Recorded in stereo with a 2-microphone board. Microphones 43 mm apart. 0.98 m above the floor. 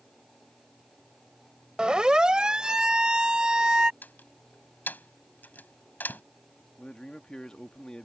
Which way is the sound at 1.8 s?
20° right (ahead or behind).